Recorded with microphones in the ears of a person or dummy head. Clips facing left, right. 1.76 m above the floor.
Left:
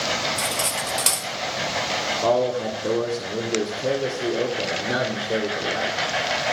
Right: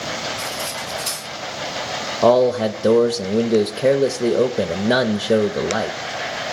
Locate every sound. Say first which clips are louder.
0.4 s cutlery clinking: left 1 dB; 50° left (ahead or behind), 1.6 m
2.2 s a man speaking: right 7 dB; 75° right (ahead or behind), 0.5 m